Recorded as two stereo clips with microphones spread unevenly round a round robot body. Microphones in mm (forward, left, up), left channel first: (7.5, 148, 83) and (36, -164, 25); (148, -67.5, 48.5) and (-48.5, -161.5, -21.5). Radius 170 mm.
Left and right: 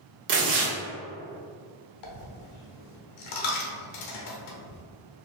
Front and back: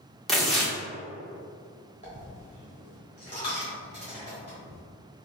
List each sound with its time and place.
0.3 s tearing paper: 80° right, 1.4 m
2.0 s a dropped coin: 100° left, 0.9 m